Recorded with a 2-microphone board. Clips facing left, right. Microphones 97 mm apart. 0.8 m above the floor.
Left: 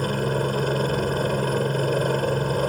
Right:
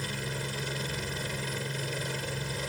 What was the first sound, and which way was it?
A helicopter, 50° left (ahead or behind).